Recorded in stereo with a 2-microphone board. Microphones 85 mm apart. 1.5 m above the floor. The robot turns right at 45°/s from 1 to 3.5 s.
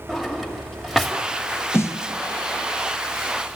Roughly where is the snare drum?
Left.